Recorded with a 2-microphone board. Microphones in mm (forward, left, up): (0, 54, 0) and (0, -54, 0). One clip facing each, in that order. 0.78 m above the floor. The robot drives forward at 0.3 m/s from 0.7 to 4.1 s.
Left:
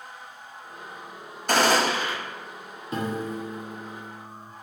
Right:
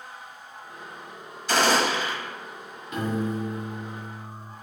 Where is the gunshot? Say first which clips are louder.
Left 1 dB; 55° left (ahead or behind), 0.9 m; by 2.1 s 45° left (ahead or behind), 0.9 m.